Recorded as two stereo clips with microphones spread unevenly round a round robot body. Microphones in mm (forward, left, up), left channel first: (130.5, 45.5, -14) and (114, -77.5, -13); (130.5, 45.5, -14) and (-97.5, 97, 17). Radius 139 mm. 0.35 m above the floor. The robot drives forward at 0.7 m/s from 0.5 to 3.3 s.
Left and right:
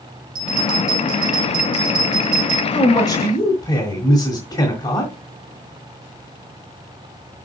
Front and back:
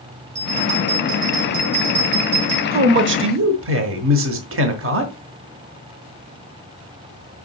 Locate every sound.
0.3 s a bell: 120° right, 3 m; by 2.6 s 140° right, 4 m
2.7 s a man speaking: 125° left, 1.1 m; by 5.1 s 145° left, 1.3 m